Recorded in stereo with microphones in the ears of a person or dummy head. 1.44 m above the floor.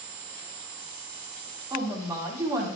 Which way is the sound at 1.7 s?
20° right (ahead or behind).